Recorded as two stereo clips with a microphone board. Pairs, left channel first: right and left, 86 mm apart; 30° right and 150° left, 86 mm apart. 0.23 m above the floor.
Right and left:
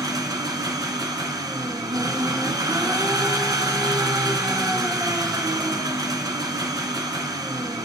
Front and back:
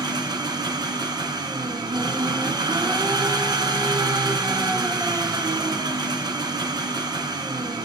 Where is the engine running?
125° left, 1.4 m.